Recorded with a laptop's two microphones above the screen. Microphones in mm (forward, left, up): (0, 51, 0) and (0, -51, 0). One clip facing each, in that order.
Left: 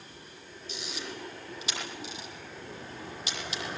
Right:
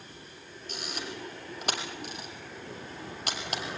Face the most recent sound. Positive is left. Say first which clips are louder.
# right 1 dB
turn(degrees=-55)  # may be behind; listen again after turning